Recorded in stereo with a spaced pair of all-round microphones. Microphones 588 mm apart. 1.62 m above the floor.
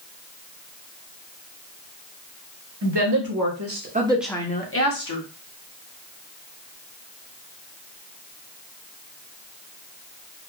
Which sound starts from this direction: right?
A woman speaking, at 2.8 s.